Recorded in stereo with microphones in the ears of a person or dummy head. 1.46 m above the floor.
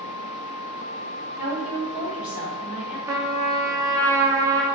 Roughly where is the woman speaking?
Centre.